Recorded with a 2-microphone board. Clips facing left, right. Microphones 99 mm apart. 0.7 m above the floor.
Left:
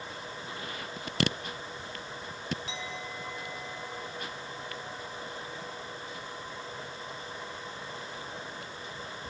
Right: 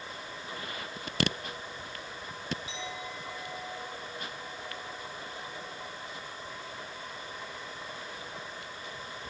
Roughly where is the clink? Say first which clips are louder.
Even; left.